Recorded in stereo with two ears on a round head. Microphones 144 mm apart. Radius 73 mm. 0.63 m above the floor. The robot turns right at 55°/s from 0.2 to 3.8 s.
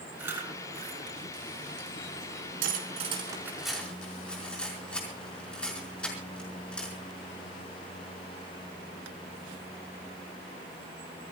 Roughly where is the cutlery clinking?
Right.